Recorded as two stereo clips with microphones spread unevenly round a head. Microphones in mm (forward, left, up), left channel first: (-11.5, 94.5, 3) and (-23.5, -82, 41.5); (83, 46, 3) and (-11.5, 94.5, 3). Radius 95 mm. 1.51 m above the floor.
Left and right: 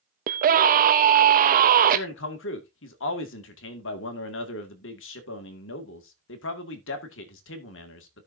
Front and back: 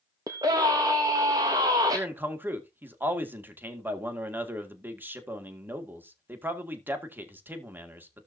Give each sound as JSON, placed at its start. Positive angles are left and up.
{"t": 0.3, "sound": "a scream", "azimuth_deg": -140, "distance_m": 0.6}
{"t": 1.9, "sound": "a man speaking", "azimuth_deg": 80, "distance_m": 2.0}